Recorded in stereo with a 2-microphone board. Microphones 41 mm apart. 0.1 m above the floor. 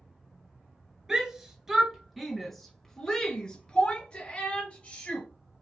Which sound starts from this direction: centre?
A shout, at 1.1 s.